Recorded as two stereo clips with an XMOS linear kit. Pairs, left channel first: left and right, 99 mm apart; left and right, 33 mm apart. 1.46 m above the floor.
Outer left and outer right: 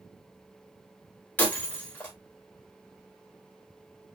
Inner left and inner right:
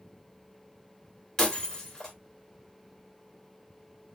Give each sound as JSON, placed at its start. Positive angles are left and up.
{"t": 1.4, "sound": "breaking glass", "side_deg": 15, "distance_m": 1.5}